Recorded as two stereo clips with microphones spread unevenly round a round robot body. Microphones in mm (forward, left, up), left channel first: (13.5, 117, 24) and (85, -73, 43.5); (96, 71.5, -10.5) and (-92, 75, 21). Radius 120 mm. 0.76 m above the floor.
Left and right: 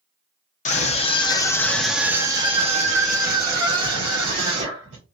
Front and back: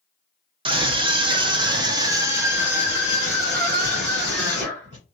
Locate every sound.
0.7 s a scream: 120° left, 1.1 m; by 5.0 s 80° right, 1.8 m